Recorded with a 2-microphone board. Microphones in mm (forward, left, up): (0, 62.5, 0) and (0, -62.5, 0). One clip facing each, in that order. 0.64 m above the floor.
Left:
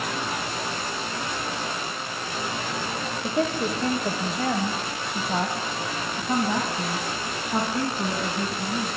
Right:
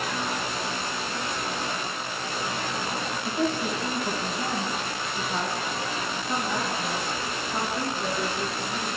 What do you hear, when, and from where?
3.2 s a woman speaking: 75° left (ahead or behind), 2.5 m; by 8.9 s 60° left (ahead or behind), 6.5 m